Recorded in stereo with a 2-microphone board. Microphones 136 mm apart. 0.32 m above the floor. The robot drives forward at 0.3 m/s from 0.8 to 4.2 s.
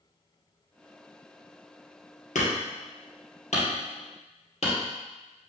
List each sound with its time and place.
2.4 s hammering: 70° left (ahead or behind), 2.5 m; by 4.8 s 60° left (ahead or behind), 2.5 m